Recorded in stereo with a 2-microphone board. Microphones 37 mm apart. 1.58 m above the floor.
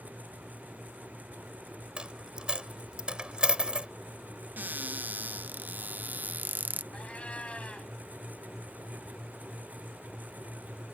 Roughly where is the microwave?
I don't hear a microwave.